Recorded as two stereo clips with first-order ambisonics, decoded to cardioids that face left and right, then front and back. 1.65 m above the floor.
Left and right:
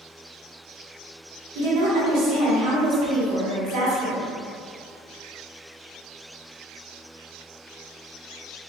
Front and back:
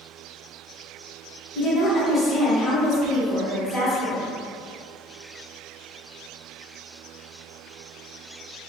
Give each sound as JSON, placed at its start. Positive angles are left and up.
{"t": 1.6, "sound": "a woman speaking", "azimuth_deg": -75, "distance_m": 1.0}